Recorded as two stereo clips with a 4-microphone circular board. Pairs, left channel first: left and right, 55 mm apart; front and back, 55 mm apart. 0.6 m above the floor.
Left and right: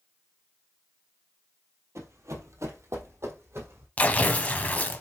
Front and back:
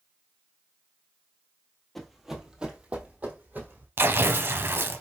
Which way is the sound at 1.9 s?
85° right.